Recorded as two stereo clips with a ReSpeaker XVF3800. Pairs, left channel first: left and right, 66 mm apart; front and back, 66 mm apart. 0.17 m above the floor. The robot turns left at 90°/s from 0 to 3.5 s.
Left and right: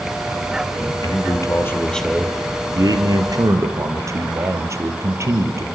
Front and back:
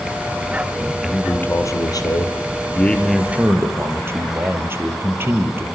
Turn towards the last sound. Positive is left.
turn(degrees=-130)